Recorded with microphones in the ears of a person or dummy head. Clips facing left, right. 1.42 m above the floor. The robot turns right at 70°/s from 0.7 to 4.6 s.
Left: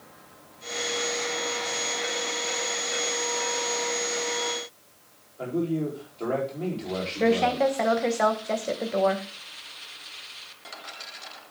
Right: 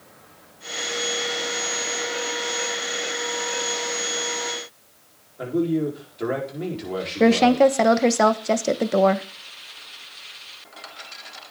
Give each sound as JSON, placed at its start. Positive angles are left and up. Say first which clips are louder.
{"t": 5.4, "sound": "a man speaking", "louder": "right 5 dB", "side_deg": -20, "distance_m": 4.5}
{"t": 7.2, "sound": "a woman speaking", "louder": "right 7 dB", "side_deg": -60, "distance_m": 0.9}